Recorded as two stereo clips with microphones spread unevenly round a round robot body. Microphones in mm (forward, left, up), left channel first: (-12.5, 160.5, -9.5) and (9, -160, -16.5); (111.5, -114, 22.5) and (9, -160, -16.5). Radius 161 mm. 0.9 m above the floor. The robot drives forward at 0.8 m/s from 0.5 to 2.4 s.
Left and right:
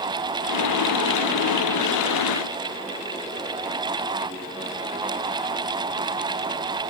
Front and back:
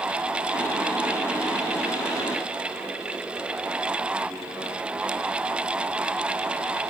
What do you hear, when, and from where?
Only background noise.